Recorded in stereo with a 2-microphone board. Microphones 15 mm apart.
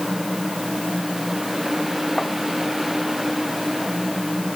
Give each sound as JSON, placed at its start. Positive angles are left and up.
{"t": 2.2, "sound": "tapping", "side_deg": 25}